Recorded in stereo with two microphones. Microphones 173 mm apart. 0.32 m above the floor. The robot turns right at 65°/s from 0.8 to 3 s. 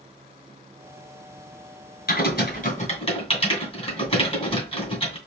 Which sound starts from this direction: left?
Typing on a keyboard, at 2.1 s.